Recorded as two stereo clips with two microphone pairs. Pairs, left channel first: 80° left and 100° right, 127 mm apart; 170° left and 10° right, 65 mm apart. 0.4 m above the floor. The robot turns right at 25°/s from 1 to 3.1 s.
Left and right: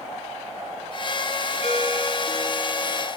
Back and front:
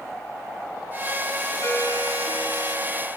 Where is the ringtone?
110° left, 4 m; by 3.1 s 145° left, 4 m.